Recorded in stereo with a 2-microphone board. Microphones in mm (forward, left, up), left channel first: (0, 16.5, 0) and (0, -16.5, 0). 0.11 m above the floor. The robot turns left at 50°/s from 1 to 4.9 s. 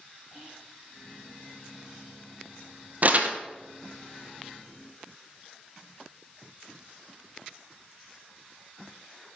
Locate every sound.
0.3 s whispering: 60° left (ahead or behind), 5.5 m
3.0 s crumpling: 50° right (ahead or behind), 1.1 m; by 3.4 s 35° right (ahead or behind), 1.1 m